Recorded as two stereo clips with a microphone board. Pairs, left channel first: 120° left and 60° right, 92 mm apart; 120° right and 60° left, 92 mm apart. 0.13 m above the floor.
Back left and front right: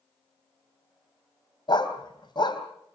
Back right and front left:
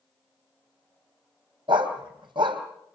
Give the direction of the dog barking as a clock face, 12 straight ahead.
9 o'clock.